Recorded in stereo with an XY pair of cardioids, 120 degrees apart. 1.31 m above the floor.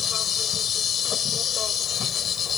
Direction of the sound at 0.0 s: 50° left.